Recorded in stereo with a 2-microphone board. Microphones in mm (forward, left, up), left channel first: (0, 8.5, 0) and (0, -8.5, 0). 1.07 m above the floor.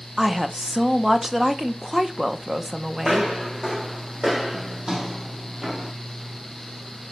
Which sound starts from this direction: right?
Footsteps, at 3.0 s.